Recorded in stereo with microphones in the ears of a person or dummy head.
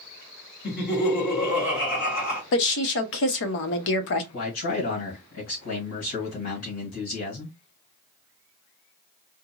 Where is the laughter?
50° left (ahead or behind), 1.8 m.